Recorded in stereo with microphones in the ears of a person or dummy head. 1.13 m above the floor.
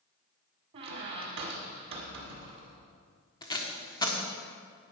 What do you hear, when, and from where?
0.7 s a squeak: 30° right (ahead or behind), 1.3 m
3.4 s tape being pulled: 30° left (ahead or behind), 1.2 m